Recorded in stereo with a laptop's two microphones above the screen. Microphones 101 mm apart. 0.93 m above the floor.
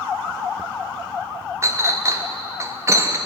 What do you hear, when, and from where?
1.6 s a clink: 25° right (ahead or behind), 0.7 m